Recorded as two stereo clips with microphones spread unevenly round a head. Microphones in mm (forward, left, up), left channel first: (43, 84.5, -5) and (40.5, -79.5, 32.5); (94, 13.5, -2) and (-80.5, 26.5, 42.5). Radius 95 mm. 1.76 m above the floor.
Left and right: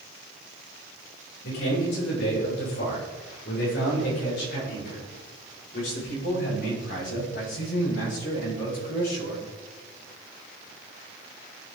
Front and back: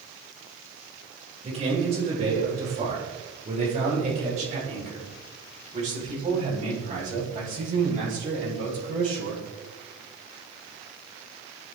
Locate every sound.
1.4 s a man speaking: 120° left, 9.5 m; by 9.4 s 130° left, 18.5 m